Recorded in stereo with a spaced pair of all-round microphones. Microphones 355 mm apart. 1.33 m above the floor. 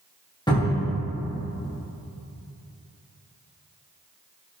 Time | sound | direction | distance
0.5 | a cupboard door | 10° left (ahead or behind) | 0.9 m